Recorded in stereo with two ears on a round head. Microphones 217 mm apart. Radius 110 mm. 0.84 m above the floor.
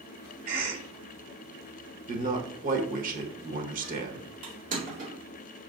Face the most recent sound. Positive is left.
turn(degrees=-35)  # may be behind; listen again after turning